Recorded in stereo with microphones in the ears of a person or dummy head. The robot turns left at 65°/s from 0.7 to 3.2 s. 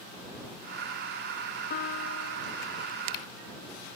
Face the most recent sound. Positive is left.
turn(degrees=40)